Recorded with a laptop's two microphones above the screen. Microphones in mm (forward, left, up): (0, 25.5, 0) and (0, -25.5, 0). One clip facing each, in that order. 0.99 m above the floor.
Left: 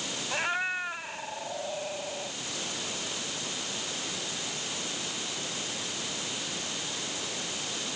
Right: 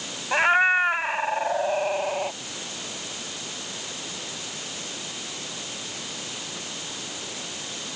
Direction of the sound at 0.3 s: 45° right (ahead or behind).